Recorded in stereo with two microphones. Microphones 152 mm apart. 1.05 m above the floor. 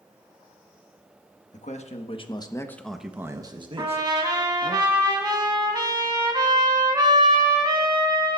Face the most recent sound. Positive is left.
turn(degrees=-30)  # may be behind; listen again after turning